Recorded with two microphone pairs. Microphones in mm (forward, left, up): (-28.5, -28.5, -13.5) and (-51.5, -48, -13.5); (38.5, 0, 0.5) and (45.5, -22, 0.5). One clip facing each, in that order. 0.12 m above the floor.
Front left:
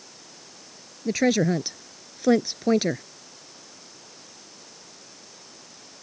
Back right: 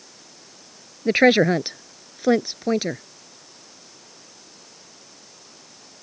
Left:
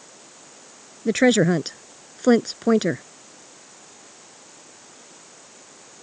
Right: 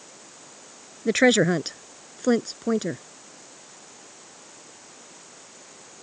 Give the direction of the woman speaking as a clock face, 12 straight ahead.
5 o'clock.